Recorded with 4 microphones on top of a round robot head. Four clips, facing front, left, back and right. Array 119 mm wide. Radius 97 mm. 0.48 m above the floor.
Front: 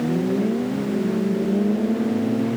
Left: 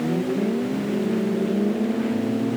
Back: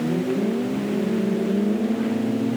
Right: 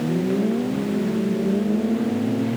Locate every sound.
Only background noise.